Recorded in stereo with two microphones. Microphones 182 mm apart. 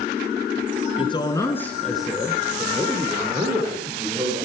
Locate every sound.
1.0 s a man speaking: 30° left (ahead or behind), 1.3 m; by 4.5 s 25° right (ahead or behind), 4 m